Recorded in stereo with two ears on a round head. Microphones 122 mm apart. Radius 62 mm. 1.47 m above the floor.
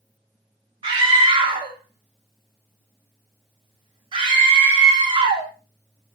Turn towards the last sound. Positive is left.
turn(degrees=-40)  # may be behind; listen again after turning